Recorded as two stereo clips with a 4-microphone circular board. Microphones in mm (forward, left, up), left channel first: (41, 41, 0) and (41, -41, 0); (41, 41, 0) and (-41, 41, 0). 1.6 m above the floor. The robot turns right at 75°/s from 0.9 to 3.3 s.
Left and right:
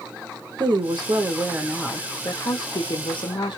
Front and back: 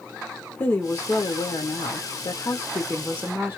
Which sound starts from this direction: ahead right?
A woman speaking, at 0.6 s.